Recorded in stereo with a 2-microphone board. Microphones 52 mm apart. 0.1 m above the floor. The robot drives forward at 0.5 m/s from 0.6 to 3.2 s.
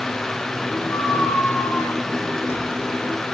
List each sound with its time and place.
0.9 s a squeak: 70° left (ahead or behind), 7 m; by 3.2 s 60° left (ahead or behind), 7.5 m